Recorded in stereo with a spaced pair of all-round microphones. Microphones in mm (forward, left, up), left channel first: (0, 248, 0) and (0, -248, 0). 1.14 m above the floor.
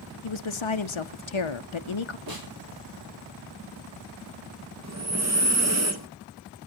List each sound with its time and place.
0.2 s a woman speaking: 70° left (ahead or behind), 0.7 m
2.3 s a snare drum: 45° right (ahead or behind), 4.5 m
4.8 s breathing: 30° right (ahead or behind), 1.2 m